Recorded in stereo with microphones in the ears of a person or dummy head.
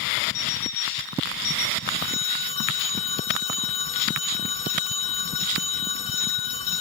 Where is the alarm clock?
80° left, 5.5 m.